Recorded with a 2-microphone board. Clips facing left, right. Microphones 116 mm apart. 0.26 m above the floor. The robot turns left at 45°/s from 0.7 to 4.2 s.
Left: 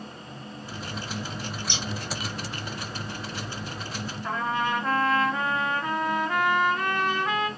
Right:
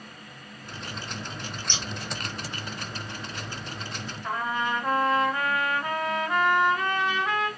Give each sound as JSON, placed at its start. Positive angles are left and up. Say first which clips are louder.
{"t": 1.7, "sound": "scissors", "louder": "even", "side_deg": 10, "distance_m": 1.2}
{"t": 4.2, "sound": "a trumpet", "louder": "left 1 dB", "side_deg": -10, "distance_m": 1.5}